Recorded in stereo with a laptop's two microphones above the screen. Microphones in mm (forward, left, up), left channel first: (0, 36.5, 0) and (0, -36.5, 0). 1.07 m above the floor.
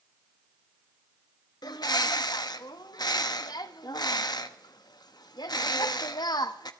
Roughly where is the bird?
Left.